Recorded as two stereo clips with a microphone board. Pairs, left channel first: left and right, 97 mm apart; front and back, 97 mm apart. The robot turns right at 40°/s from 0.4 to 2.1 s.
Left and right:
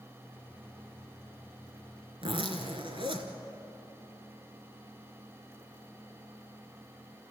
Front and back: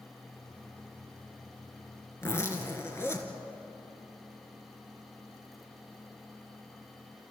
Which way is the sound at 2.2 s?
65° right.